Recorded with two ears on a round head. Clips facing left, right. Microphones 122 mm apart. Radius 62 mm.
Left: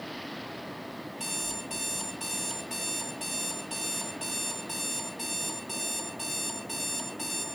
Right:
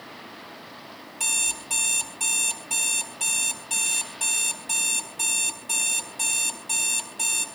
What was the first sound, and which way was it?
An alarm clock, 55° right (ahead or behind).